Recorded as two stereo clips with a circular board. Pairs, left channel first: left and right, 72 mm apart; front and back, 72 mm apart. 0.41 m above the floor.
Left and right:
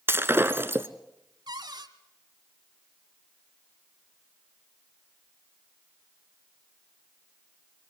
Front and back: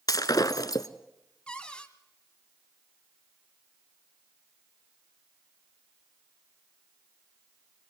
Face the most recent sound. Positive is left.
turn(degrees=-75)